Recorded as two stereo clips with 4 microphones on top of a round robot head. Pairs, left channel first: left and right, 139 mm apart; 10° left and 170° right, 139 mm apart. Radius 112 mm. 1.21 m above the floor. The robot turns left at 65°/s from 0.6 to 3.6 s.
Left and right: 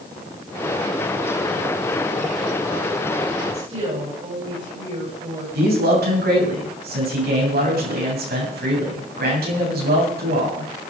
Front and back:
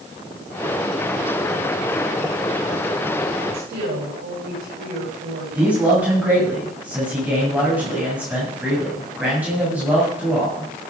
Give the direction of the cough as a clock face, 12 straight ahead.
No cough in this recording.